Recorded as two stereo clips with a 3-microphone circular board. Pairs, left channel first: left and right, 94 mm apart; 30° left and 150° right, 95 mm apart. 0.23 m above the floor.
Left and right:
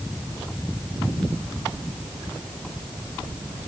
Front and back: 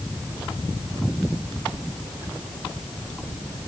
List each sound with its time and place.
Only background noise.